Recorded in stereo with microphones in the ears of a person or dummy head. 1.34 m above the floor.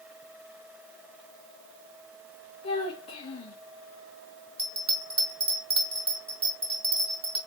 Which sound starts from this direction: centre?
A bell, at 4.6 s.